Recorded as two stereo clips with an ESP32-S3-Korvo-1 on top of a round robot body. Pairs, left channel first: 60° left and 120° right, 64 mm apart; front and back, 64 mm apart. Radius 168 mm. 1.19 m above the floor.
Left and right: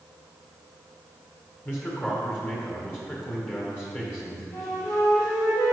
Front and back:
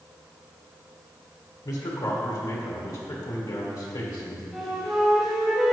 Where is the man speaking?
Straight ahead, 1.3 m.